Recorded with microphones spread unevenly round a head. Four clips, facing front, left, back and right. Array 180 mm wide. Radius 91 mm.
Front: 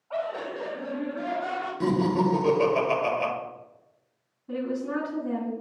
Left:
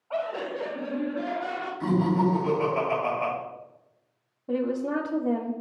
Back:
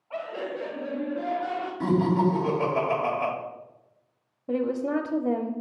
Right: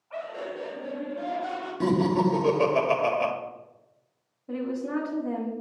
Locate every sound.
0.1 s laughter: 70° left, 1.2 m; by 1.7 s 35° left, 3.5 m
1.8 s laughter: 75° right, 1.5 m
4.5 s a woman speaking: 145° left, 0.8 m